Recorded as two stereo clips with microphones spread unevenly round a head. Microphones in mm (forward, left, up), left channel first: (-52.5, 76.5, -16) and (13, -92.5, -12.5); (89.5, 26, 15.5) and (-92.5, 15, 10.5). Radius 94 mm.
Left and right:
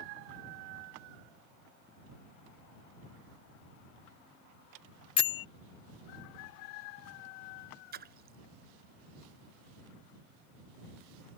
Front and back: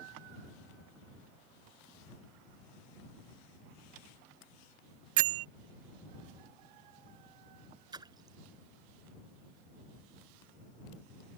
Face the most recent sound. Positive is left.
turn(degrees=-105)